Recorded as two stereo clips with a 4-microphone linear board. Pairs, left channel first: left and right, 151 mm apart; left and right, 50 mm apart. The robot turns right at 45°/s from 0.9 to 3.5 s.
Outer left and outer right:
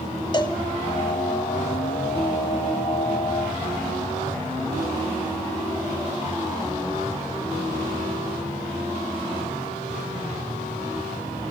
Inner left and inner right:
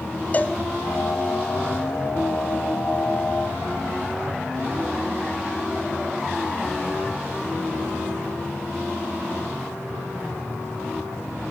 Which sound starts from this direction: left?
A cowbell, at 0.3 s.